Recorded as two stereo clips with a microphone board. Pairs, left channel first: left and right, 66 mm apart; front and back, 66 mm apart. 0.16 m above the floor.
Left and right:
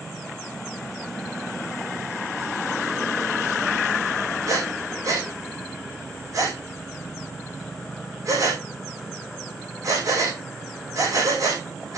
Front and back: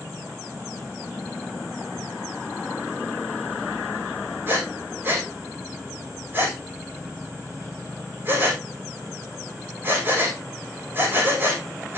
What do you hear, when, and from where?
4.5 s breathing: 120° right, 8 m